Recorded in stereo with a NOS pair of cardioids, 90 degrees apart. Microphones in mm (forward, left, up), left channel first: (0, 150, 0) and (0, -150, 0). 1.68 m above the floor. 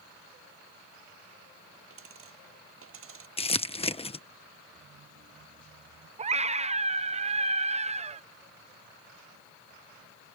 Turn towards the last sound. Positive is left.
turn(degrees=-25)